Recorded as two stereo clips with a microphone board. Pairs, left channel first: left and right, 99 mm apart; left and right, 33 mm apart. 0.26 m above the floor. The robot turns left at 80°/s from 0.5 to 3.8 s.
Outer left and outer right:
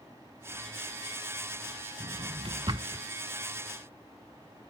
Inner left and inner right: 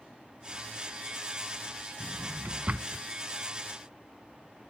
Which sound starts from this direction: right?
A drawer, at 2.0 s.